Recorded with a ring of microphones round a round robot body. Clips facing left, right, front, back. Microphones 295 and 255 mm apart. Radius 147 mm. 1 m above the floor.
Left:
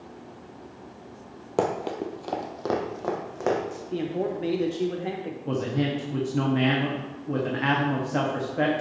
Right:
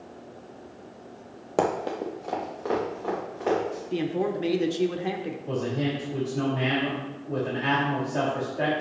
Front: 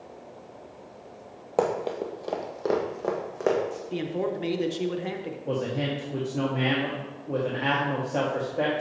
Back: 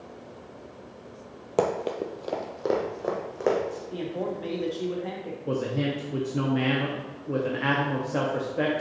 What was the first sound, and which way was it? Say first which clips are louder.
Running footsteps: even, even; 175° left.